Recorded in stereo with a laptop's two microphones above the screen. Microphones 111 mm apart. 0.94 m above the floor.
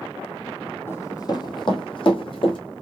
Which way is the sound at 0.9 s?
20° left (ahead or behind).